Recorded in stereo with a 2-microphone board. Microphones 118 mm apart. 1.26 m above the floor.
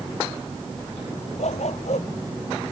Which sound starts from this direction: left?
A dog barking, at 1.4 s.